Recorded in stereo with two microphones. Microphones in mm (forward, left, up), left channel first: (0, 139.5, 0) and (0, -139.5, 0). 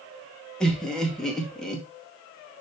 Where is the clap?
No clap in this recording.